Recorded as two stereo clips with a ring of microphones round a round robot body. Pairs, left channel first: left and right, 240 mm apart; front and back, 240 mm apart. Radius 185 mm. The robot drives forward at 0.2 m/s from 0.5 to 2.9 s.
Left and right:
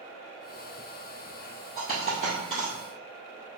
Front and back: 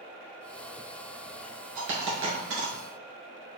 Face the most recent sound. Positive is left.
turn(degrees=155)